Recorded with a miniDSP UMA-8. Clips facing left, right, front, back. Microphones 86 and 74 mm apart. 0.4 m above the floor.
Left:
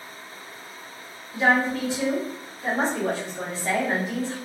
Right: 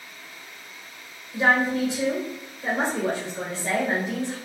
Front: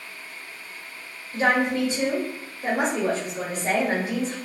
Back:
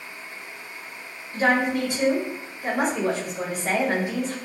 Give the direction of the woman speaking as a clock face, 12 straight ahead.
1 o'clock.